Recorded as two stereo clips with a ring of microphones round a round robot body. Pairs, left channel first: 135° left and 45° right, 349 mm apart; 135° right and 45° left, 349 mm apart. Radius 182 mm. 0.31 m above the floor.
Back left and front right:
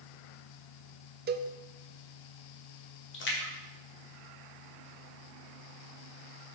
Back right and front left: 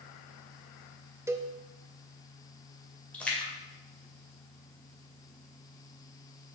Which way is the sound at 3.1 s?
140° left.